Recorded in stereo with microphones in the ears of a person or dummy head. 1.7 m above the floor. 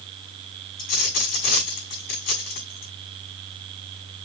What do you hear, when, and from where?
0.8 s a dropped coin: 45° left (ahead or behind), 7 m